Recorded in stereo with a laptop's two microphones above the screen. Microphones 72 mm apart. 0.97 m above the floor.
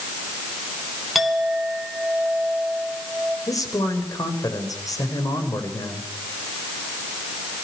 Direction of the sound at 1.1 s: Centre (ahead or behind).